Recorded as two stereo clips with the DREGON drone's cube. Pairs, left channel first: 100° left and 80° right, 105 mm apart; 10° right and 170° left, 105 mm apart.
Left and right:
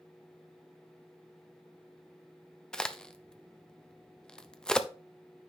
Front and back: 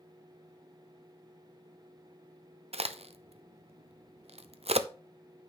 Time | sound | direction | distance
2.7 | a crack | 175° right | 0.7 m